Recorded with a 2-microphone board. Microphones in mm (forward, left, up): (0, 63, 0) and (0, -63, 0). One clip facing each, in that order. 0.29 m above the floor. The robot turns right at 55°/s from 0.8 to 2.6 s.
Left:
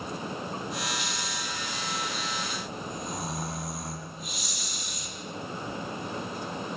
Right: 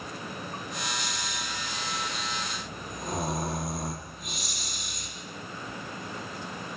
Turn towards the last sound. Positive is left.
turn(degrees=-55)